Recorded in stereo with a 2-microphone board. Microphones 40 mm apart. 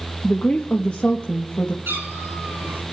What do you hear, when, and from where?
0.2 s a woman speaking: 35° left (ahead or behind), 1.1 m
1.9 s a cat meowing: 80° right, 7 m